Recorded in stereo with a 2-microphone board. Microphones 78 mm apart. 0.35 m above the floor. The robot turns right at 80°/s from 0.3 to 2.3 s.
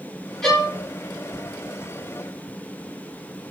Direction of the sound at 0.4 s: 10° left (ahead or behind).